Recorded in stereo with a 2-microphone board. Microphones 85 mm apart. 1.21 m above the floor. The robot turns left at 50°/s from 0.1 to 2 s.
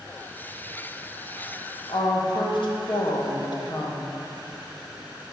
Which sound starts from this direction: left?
A woman speaking, at 1.9 s.